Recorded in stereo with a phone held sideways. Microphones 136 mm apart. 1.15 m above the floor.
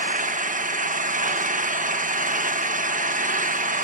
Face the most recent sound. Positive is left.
turn(degrees=-75)  # may be behind; listen again after turning